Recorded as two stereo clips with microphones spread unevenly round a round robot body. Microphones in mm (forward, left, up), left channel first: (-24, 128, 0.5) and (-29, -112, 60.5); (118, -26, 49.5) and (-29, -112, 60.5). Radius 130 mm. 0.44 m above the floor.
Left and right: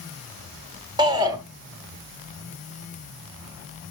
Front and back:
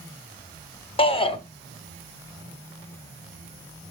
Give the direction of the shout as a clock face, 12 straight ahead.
12 o'clock.